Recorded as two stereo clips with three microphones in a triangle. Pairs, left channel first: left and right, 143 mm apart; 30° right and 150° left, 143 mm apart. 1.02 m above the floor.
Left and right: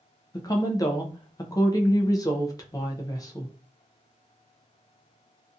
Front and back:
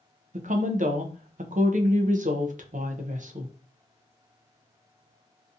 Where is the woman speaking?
150° left, 0.5 m.